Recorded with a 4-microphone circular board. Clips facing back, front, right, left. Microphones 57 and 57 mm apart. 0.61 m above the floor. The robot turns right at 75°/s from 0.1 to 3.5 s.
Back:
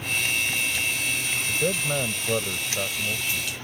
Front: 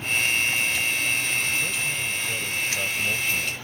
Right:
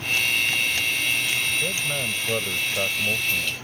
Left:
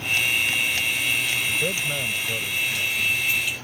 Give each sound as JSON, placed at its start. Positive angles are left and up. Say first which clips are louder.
{"t": 1.5, "sound": "a man speaking", "louder": "back 2 dB, left 1 dB", "azimuth_deg": 150}